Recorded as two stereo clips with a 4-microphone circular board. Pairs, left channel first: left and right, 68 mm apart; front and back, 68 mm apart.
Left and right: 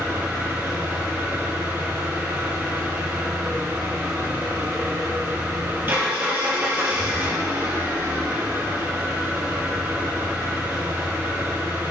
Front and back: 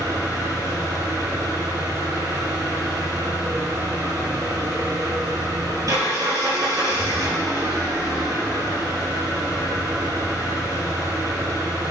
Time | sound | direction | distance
0.0 | an engine running | 145° right | 3.5 m